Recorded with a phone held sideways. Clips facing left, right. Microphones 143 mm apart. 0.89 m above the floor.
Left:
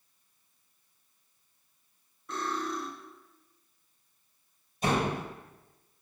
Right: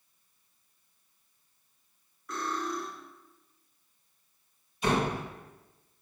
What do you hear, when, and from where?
2.3 s cutlery clinking: 30° left (ahead or behind), 3 m
4.8 s a door slam: 45° left (ahead or behind), 3.5 m